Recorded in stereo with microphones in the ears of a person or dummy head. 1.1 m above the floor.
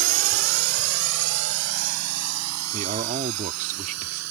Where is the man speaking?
40° right (ahead or behind).